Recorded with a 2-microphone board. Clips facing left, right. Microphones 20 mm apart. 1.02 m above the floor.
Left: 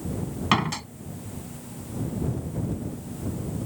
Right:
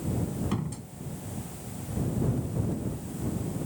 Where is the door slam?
65° left (ahead or behind).